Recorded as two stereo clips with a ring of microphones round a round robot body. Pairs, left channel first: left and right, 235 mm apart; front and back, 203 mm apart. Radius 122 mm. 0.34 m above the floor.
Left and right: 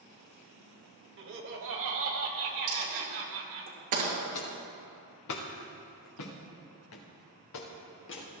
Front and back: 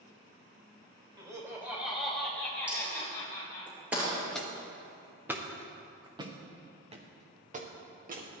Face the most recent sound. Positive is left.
turn(degrees=135)